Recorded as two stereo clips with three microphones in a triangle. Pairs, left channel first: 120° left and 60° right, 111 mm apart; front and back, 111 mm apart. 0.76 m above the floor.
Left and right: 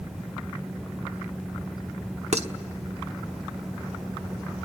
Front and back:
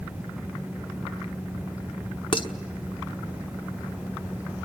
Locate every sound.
2.3 s dishes clattering: 45° right, 1.1 m